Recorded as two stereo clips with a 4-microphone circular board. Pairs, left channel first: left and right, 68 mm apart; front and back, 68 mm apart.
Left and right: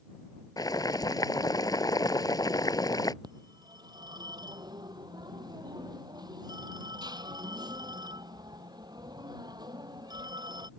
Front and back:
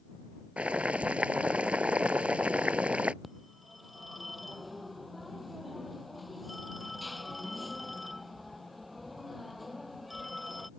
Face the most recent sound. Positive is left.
turn(degrees=-90)